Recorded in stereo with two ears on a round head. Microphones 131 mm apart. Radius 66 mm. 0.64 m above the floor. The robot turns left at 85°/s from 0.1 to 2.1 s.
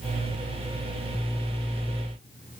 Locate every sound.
Only background noise.